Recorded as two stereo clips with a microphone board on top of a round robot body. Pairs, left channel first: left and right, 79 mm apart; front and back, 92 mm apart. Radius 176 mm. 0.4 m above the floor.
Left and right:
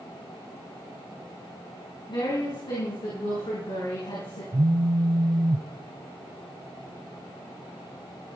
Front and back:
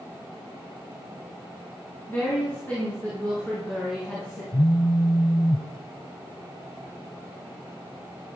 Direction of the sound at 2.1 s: 70° left.